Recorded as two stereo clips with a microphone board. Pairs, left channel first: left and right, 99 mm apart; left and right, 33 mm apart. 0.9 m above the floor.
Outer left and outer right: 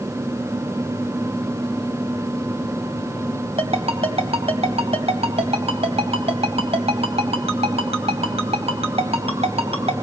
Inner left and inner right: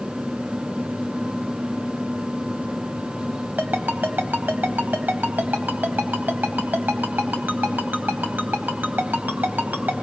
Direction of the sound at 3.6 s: 80° right.